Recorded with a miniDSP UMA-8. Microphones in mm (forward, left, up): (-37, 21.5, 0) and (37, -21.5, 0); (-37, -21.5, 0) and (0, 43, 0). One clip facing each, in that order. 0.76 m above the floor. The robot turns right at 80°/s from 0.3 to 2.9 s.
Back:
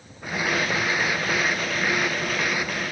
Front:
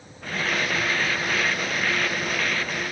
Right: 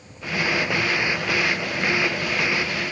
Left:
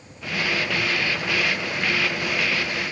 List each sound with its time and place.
Only background noise.